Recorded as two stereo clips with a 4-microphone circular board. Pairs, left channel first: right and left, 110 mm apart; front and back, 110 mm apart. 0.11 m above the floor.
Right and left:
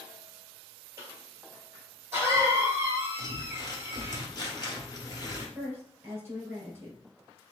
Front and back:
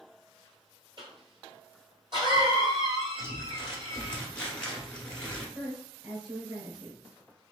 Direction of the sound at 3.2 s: 75° right.